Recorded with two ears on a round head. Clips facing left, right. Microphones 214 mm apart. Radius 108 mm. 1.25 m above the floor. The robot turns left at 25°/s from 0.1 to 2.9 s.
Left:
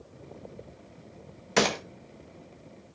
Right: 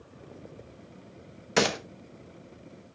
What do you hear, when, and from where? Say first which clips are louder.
1.6 s a gunshot: even; centre (ahead or behind), 1.0 m; by 1.8 s 5° right (ahead or behind), 1.0 m